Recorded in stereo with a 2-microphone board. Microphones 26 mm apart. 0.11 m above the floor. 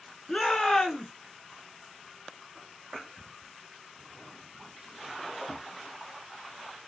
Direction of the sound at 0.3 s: 25° left (ahead or behind).